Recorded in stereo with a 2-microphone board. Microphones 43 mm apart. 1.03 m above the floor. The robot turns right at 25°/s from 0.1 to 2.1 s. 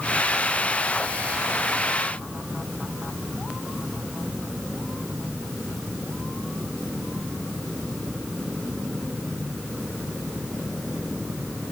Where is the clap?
I don't hear a clap.